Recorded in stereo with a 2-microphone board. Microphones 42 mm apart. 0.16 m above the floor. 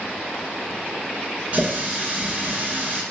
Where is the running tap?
40° right (ahead or behind), 1.3 m.